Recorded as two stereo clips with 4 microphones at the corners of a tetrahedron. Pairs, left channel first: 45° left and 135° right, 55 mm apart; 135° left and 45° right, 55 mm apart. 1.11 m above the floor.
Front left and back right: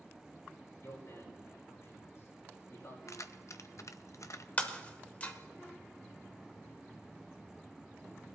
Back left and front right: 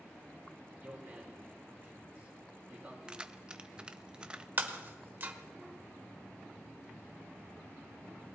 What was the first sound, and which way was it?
A man speaking, 20° left.